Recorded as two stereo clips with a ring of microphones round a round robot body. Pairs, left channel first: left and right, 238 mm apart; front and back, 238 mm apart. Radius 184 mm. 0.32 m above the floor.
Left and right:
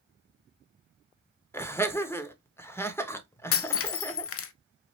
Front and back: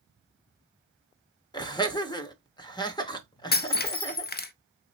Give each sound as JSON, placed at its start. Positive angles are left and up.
{"t": 1.5, "sound": "laughter", "azimuth_deg": 30, "distance_m": 0.9}
{"t": 3.5, "sound": "breaking glass", "azimuth_deg": 55, "distance_m": 0.6}